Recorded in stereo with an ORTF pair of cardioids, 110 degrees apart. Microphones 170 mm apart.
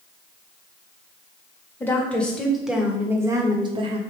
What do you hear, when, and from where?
1.8 s a woman speaking: 10° left, 1.5 m; by 4.0 s 40° right, 1.0 m